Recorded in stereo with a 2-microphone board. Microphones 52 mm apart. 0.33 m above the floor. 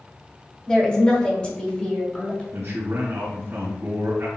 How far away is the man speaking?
About 2 m.